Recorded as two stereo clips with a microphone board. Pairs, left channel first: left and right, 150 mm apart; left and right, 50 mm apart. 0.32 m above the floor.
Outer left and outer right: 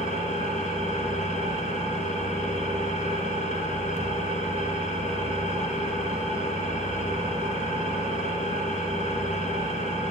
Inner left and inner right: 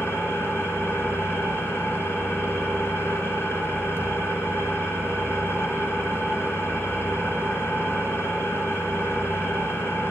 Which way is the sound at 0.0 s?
50° left (ahead or behind).